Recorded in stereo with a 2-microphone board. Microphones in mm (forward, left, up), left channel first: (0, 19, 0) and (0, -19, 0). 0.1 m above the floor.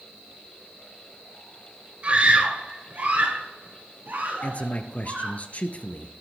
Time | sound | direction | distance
2.0 | a scream | 35° right (ahead or behind) | 1.9 m
4.4 | a man speaking | 40° left (ahead or behind) | 1.4 m